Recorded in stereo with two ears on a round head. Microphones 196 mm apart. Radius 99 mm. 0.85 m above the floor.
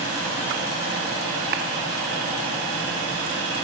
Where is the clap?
50° right (ahead or behind), 1.6 m.